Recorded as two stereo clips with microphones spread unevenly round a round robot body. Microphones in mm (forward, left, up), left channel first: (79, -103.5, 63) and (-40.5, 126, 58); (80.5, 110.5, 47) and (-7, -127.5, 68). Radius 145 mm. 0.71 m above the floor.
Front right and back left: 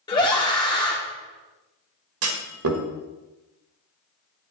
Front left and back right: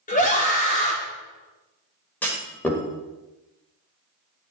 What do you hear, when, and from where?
0.1 s a scream: 10° left, 1.4 m
2.2 s a clunk: 155° left, 1.5 m